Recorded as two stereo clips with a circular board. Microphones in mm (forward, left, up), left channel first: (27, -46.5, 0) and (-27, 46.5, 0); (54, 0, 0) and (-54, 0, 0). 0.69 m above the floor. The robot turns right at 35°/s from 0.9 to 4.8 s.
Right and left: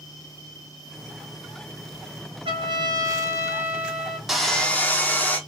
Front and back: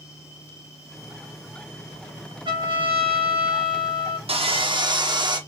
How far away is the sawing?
About 0.6 m.